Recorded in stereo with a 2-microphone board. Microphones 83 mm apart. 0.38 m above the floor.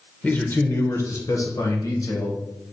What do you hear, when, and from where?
0.2 s a man speaking: 20° left (ahead or behind), 0.8 m; by 2.4 s 55° left (ahead or behind), 1.6 m